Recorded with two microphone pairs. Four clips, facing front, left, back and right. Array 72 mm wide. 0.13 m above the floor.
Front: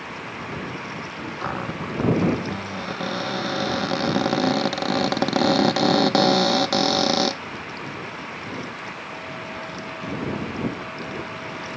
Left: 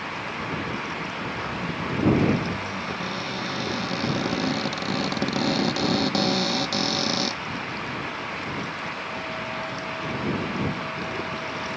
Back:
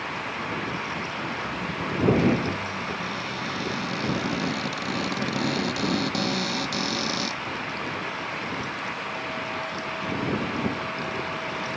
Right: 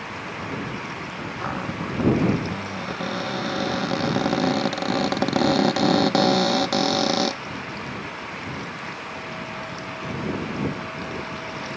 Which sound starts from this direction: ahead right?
A cupboard door, at 1.4 s.